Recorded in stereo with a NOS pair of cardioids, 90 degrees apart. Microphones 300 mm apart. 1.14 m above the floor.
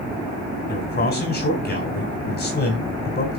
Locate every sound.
0.7 s a man speaking: 35° left, 4 m